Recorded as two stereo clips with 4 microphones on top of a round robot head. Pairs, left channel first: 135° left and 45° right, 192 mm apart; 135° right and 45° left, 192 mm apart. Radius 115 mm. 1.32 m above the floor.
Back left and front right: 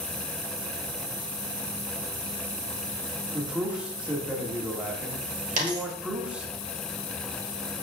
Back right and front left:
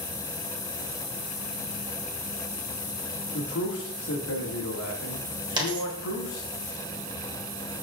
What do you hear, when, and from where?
3.3 s a man speaking: 130° right, 2.0 m
5.6 s a dropped coin: 15° right, 1.2 m